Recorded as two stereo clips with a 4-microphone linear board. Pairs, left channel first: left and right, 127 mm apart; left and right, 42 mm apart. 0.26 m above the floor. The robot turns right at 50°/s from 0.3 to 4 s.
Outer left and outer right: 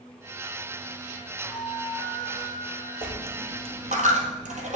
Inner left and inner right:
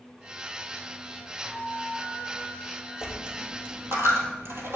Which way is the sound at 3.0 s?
15° right (ahead or behind).